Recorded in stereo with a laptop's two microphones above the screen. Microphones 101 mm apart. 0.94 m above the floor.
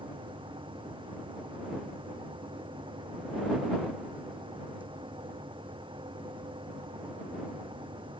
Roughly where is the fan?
Right.